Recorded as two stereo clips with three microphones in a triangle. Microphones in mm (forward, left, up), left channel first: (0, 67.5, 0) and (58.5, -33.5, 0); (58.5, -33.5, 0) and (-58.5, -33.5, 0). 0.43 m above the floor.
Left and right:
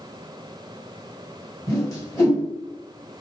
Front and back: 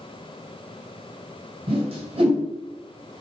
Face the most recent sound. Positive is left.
turn(degrees=175)